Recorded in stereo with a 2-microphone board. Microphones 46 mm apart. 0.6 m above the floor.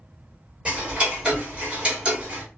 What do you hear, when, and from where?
0.7 s ticking: 20° right (ahead or behind), 1.3 m